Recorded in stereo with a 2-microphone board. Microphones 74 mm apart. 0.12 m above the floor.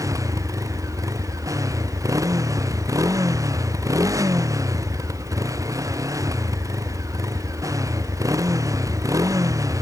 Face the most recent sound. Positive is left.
turn(degrees=-50)  # may be behind; listen again after turning